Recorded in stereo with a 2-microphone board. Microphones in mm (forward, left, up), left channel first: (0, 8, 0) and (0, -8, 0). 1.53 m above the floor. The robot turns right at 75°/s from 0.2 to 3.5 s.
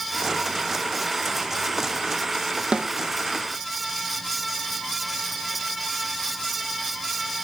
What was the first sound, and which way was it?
A snare drum, 80° right.